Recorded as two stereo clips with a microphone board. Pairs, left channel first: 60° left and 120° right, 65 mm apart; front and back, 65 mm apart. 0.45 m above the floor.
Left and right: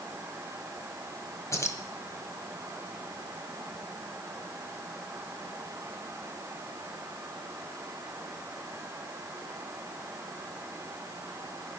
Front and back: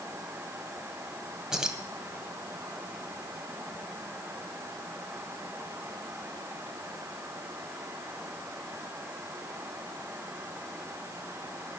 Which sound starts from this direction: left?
Keys jangling, at 1.5 s.